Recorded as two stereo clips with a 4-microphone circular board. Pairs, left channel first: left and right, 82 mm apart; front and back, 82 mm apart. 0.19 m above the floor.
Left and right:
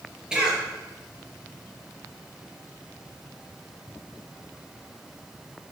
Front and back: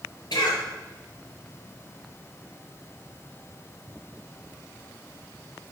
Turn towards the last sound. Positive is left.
turn(degrees=-10)